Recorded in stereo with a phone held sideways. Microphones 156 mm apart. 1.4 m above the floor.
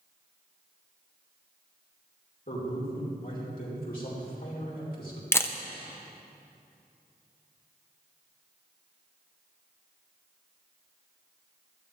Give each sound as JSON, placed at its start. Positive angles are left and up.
{"t": 2.5, "sound": "a man speaking", "side_deg": 70, "distance_m": 4.5}
{"t": 5.3, "sound": "a camera shutter", "side_deg": 15, "distance_m": 0.7}